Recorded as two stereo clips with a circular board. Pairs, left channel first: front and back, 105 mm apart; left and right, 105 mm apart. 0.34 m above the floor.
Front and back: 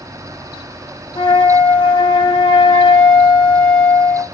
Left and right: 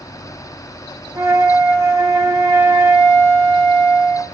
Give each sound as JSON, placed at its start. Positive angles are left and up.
{"t": 1.1, "sound": "a flute", "azimuth_deg": -35, "distance_m": 0.6}